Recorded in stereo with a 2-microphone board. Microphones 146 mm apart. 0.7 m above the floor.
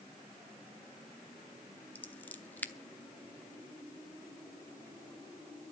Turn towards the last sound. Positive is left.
turn(degrees=10)  # may be behind; listen again after turning